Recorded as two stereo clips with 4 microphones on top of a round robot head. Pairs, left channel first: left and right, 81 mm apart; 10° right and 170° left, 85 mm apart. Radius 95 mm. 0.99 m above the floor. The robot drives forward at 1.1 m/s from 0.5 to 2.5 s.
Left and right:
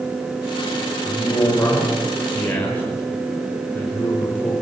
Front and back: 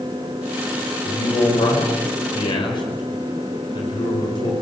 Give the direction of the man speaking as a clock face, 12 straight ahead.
12 o'clock.